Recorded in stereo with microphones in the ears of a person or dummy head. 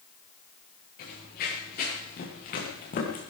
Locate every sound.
1.0 s running footsteps: 55° left (ahead or behind), 7.5 m; by 3.2 s 45° left (ahead or behind), 6 m